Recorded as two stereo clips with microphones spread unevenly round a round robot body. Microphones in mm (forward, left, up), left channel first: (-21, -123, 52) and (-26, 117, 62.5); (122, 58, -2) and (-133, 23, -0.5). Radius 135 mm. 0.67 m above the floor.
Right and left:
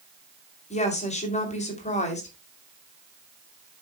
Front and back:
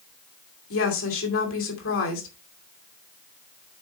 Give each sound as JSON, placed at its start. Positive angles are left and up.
{"t": 0.7, "sound": "a woman speaking", "azimuth_deg": -30, "distance_m": 2.5}